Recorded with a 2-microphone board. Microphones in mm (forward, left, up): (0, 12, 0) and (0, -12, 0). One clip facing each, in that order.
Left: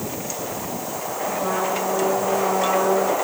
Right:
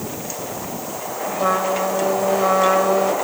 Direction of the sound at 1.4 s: 45° right (ahead or behind).